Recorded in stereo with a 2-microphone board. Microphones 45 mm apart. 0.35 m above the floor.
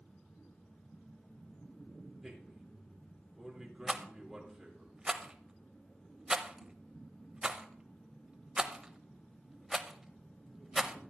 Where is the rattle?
15° right (ahead or behind), 0.7 m.